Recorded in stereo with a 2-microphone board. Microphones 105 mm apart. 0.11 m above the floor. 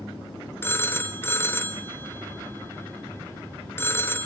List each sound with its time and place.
0.6 s a phone ringing: 25° left (ahead or behind), 0.7 m